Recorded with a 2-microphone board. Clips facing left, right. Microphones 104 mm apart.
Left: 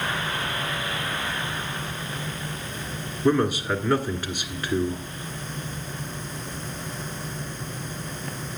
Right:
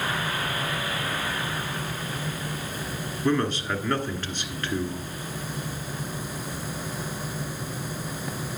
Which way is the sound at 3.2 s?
10° left (ahead or behind).